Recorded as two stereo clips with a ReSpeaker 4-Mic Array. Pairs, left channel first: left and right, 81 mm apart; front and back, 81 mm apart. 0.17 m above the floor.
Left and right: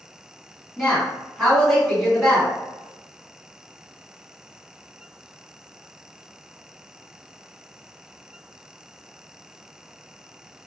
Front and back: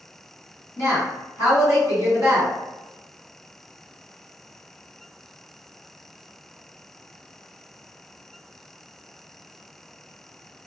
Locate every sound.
0.8 s a woman speaking: 10° left, 1.8 m